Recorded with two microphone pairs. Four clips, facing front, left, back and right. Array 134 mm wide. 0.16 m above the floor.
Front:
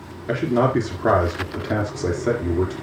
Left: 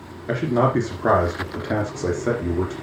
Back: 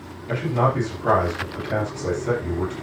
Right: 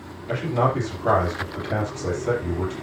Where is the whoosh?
No whoosh in this recording.